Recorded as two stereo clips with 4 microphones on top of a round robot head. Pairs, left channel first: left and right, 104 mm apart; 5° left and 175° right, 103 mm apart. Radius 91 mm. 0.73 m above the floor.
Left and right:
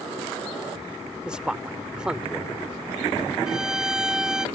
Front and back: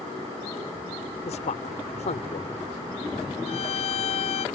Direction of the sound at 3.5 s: 5° right.